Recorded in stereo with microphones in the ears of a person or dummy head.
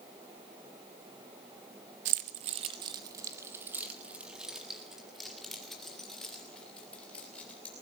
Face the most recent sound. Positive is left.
turn(degrees=5)  # may be behind; listen again after turning